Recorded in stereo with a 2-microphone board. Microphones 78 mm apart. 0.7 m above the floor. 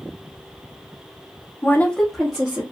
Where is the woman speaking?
30° left (ahead or behind), 0.5 m; by 2.6 s 15° right (ahead or behind), 1.0 m.